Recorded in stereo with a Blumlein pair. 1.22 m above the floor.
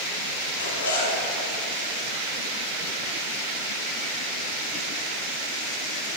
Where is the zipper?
70° left, 2.5 m.